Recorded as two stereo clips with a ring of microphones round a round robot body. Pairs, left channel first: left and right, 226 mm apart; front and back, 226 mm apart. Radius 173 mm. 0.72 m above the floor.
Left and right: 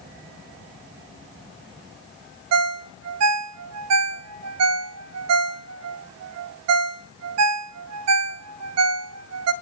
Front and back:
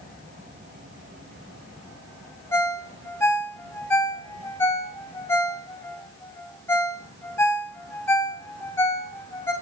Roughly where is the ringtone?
Right.